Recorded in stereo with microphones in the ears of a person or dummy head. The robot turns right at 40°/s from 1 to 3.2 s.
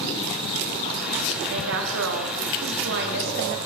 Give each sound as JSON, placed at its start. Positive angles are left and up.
{"t": 1.5, "sound": "a woman speaking", "azimuth_deg": -125, "distance_m": 2.0}